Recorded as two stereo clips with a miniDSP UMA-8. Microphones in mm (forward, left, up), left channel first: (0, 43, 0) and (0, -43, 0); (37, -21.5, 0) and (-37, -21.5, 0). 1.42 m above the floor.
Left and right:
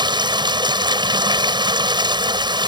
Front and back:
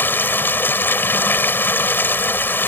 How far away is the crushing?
I don't hear crushing.